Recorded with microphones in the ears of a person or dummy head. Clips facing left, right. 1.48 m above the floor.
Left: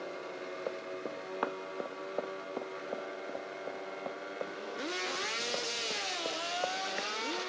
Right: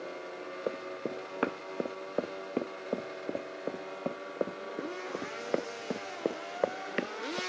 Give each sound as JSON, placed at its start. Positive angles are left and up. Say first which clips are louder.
{"t": 0.7, "sound": "running footsteps", "louder": "right 5 dB", "side_deg": -30}